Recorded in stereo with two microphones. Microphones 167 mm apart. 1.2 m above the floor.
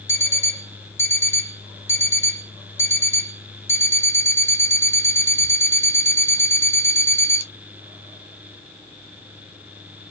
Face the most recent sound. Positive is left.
turn(degrees=15)  # may be behind; listen again after turning